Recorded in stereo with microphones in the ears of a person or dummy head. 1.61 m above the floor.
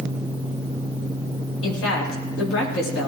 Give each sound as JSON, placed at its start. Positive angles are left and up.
{"t": 1.6, "sound": "a woman speaking", "side_deg": 90, "distance_m": 7.5}